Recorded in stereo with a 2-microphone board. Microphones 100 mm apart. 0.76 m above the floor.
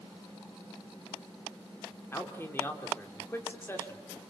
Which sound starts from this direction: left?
A man speaking, at 2.1 s.